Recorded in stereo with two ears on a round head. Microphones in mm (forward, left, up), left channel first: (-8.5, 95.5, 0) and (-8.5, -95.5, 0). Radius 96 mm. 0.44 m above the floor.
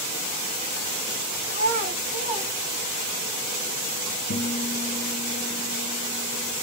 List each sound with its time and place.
1.5 s a child speaking: 30° right (ahead or behind), 1.0 m; by 3.2 s 20° right (ahead or behind), 1.4 m
4.3 s a guitar: 65° left (ahead or behind), 1.0 m